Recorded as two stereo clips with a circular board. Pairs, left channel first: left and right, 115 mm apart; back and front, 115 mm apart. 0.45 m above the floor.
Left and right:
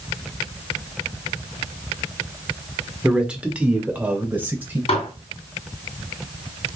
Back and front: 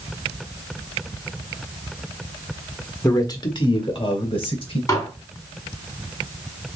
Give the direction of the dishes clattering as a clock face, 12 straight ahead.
8 o'clock.